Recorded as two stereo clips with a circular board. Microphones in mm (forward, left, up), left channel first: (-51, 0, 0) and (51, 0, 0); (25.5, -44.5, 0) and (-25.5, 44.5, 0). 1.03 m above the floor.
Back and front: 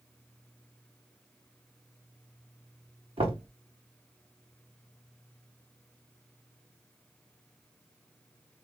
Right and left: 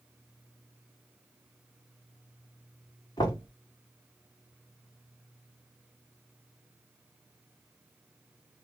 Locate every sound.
3.2 s knocking: 15° right, 1.5 m